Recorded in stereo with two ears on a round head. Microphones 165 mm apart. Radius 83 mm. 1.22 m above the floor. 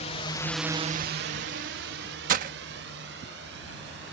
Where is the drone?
40° left (ahead or behind); by 4.1 s 65° right (ahead or behind).